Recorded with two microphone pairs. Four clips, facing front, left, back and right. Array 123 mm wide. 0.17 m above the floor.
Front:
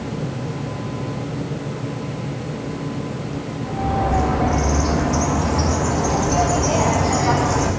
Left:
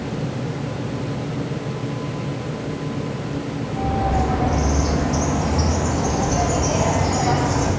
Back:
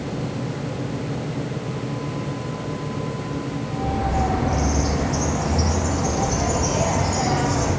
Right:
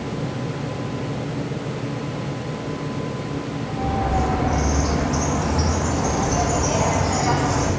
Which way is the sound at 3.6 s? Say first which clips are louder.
Left 2 dB, front 6 dB; 20° right.